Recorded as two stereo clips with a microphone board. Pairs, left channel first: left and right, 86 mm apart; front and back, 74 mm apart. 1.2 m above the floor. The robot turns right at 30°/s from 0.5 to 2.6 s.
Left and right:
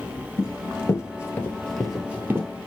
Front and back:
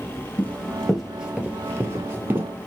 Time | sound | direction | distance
0.4 | running footsteps | 50° left | 1.6 m